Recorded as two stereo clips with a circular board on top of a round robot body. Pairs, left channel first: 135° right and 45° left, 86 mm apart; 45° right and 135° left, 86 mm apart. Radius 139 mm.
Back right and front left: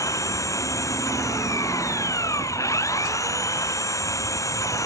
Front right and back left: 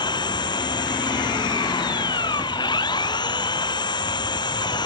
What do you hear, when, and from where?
0.0 s an engine running: 80° right